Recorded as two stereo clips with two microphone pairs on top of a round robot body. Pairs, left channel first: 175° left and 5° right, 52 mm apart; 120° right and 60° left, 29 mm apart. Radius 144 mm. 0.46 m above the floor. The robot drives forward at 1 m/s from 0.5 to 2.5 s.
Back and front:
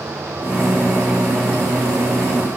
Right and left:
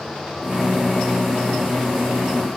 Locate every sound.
Only background noise.